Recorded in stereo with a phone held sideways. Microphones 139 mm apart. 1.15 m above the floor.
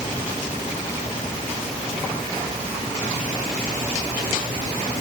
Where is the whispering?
I don't hear whispering.